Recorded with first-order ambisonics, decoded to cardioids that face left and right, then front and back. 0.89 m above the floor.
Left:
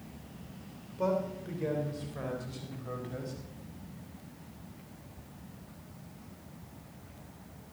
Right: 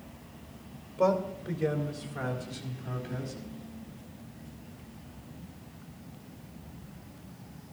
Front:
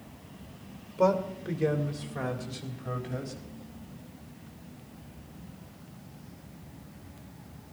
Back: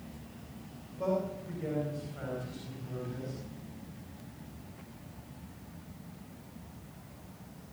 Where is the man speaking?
10° right, 3 m; by 3.3 s 10° left, 4.5 m.